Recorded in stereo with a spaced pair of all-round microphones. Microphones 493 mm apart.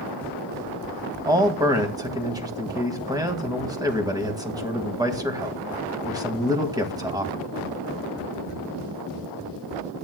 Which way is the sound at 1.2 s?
5° right (ahead or behind).